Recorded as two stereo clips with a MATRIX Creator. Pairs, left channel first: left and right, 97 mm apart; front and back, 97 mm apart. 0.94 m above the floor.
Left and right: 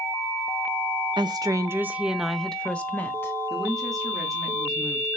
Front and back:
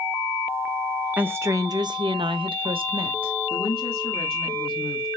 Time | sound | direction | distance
1.2 | a woman speaking | 115° right | 0.8 m
3.5 | a woman speaking | 5° right | 2.5 m